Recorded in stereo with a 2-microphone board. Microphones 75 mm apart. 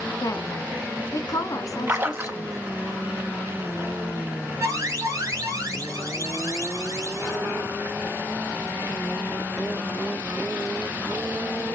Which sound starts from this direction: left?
A woman speaking, at 0.2 s.